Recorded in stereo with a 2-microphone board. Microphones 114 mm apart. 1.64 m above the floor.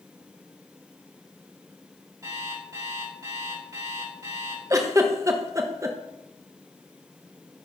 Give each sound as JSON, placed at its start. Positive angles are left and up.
{"t": 2.2, "sound": "an alarm clock", "side_deg": -30, "distance_m": 4.0}
{"t": 4.7, "sound": "a giggle", "side_deg": -30, "distance_m": 0.9}